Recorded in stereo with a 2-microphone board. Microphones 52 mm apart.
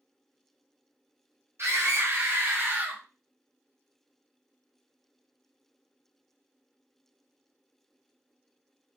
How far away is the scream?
About 1.5 m.